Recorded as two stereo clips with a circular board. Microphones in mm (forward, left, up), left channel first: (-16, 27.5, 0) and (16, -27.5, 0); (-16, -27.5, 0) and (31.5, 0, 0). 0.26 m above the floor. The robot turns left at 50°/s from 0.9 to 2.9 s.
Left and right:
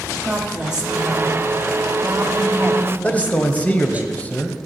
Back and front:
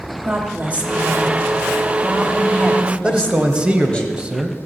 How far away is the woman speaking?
About 1.5 m.